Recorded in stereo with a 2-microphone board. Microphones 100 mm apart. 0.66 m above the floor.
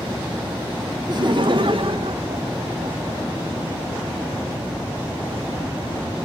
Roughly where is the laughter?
Right.